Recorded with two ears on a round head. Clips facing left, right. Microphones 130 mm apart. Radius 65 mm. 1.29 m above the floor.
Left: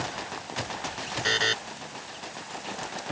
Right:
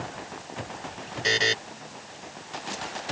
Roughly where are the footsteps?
I don't hear footsteps.